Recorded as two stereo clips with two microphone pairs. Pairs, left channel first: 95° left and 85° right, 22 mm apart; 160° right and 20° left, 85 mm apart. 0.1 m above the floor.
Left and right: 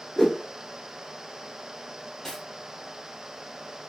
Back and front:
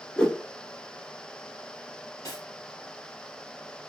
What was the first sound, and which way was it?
A whoosh, 140° left.